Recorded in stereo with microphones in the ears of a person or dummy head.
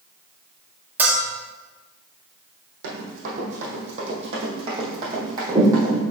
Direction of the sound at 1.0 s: 5° right (ahead or behind).